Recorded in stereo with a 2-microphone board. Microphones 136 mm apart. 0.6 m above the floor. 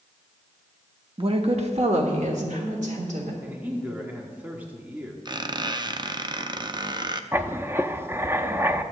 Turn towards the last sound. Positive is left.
turn(degrees=-20)  # may be behind; listen again after turning